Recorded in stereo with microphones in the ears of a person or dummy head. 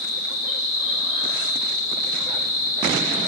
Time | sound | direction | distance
0.0 | an insect | 20° right (ahead or behind) | 2 m